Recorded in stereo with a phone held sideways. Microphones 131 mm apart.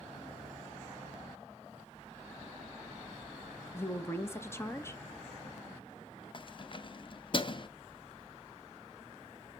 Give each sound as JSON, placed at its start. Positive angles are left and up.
{"t": 3.7, "sound": "a woman speaking", "side_deg": 20, "distance_m": 1.0}
{"t": 6.3, "sound": "keys jangling", "side_deg": 40, "distance_m": 0.5}